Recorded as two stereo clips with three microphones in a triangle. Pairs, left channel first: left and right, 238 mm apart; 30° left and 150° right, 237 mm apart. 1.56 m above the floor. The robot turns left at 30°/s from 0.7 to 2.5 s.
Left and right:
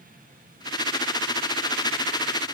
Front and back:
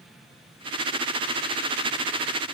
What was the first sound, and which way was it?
Only background noise.